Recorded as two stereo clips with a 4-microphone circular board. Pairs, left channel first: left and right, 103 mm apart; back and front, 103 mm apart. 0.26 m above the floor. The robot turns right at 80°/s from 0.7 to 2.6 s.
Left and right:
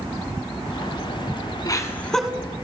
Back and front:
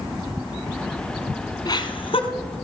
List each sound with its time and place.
1.6 s laughter: 135° left, 2.5 m; by 2.3 s 175° right, 2.5 m